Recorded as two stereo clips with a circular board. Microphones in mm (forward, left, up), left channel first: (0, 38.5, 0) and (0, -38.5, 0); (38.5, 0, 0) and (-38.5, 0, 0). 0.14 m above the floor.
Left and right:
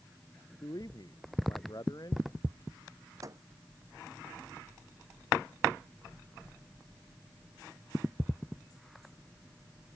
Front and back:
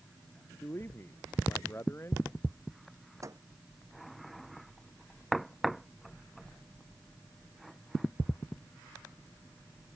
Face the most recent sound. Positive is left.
turn(degrees=-135)